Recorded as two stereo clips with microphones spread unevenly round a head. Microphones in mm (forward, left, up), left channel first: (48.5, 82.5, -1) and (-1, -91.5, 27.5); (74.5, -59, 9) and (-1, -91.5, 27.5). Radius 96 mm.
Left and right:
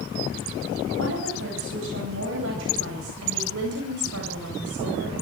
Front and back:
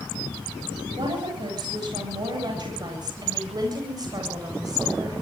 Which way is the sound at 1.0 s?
135° right.